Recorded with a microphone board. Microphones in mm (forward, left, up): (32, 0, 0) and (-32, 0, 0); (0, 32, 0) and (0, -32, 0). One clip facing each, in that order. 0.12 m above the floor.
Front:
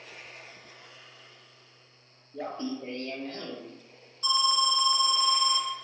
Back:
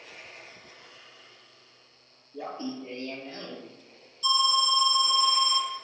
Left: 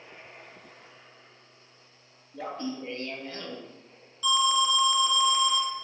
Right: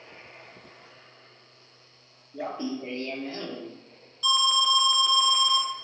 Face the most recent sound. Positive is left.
turn(degrees=10)